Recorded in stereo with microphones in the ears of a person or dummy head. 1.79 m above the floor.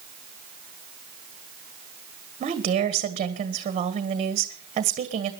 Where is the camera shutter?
No camera shutter in this recording.